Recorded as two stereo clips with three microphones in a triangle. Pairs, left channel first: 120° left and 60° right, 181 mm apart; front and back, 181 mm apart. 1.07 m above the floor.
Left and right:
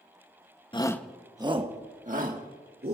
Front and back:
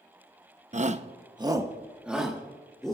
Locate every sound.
0.7 s a shout: 165° left, 0.8 m; by 3.0 s 85° right, 2 m